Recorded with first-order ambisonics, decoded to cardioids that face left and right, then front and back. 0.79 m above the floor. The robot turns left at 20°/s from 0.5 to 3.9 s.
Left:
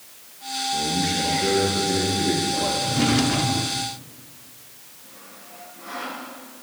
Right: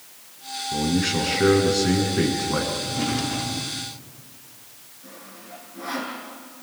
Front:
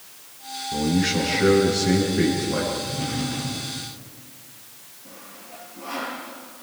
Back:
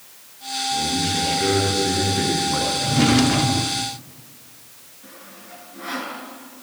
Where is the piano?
No piano in this recording.